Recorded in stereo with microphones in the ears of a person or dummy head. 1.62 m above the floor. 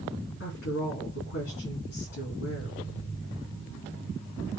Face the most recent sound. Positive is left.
turn(degrees=55)  # may be behind; listen again after turning